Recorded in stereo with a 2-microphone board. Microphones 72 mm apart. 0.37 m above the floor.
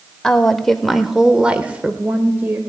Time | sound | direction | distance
0.2 | a woman speaking | 10° left (ahead or behind) | 1.0 m